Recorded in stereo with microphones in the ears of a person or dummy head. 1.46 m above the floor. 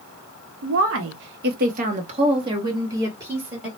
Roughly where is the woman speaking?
Right.